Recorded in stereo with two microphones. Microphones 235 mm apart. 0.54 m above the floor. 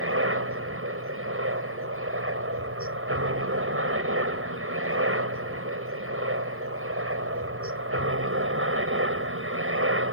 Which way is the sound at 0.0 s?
60° right (ahead or behind).